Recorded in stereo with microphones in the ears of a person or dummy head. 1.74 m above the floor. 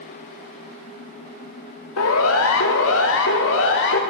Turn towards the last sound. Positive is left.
turn(degrees=65)  # may be behind; listen again after turning